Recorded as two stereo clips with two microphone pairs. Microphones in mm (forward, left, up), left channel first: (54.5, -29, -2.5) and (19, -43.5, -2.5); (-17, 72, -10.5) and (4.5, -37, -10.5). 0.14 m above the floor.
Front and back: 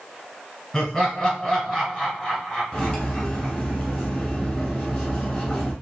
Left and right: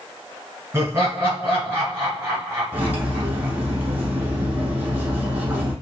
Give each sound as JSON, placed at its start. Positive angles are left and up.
{"t": 0.7, "sound": "laughter", "azimuth_deg": -30, "distance_m": 1.6}
{"t": 2.7, "sound": "cutlery clinking", "azimuth_deg": -20, "distance_m": 1.0}